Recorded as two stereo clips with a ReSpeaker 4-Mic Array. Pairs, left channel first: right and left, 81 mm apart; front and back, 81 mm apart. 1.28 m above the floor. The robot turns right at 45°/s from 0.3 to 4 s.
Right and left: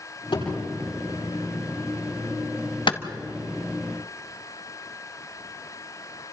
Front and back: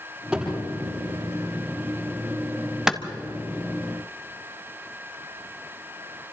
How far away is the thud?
About 9.5 m.